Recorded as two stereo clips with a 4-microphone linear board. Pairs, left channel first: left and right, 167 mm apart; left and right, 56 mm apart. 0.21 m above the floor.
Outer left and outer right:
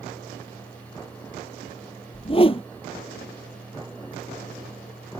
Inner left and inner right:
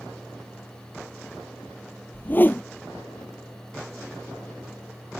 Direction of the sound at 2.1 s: 35° left (ahead or behind).